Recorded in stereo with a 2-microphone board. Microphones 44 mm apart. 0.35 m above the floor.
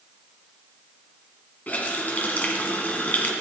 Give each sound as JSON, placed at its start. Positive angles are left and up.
{"t": 1.7, "sound": "a running tap", "side_deg": 40, "distance_m": 2.0}